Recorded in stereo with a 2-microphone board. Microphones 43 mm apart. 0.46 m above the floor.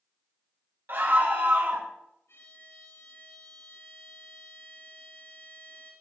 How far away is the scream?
About 3.5 m.